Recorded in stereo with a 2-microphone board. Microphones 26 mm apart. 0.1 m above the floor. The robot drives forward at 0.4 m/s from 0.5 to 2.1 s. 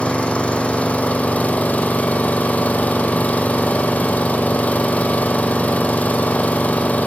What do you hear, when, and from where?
0.0 s an engine running: 50° left (ahead or behind), 1.0 m; by 7.1 s 75° left (ahead or behind), 0.8 m